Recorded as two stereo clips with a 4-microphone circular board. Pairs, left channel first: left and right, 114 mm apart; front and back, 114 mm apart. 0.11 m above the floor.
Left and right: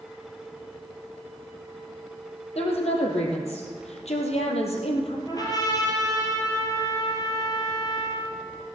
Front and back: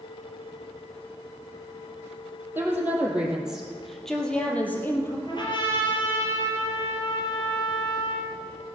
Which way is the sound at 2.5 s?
110° left.